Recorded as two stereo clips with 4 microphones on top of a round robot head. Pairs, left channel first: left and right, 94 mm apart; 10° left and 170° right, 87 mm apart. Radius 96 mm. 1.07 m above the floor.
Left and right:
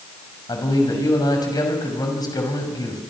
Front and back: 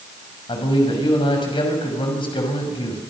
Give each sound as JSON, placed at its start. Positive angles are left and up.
{"t": 0.5, "sound": "a man speaking", "azimuth_deg": 40, "distance_m": 6.5}